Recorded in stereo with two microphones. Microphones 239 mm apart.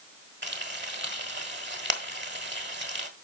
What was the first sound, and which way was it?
Frying, 50° right (ahead or behind).